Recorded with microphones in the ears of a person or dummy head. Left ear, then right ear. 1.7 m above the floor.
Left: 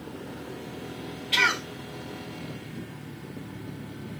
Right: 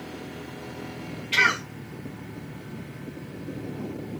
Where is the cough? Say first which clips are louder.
Right 2 dB; 5° right (ahead or behind), 1.3 m.